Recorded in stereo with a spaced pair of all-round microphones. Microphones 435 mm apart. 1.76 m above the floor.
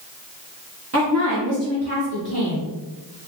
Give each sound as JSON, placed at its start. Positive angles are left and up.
{"t": 0.9, "sound": "a woman speaking", "side_deg": -35, "distance_m": 0.8}